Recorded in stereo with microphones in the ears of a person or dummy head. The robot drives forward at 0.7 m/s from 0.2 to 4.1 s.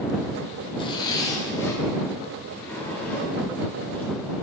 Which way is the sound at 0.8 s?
25° left (ahead or behind).